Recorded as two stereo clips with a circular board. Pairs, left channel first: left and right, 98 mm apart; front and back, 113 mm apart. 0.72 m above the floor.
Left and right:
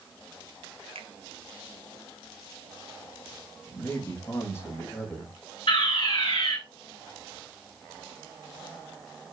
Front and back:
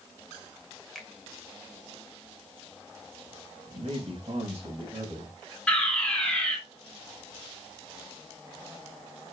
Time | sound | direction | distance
0.9 | a finger snap | 90° right | 2 m
3.7 | a man speaking | 155° left | 3.5 m
5.7 | a fire alarm | 80° left | 3.5 m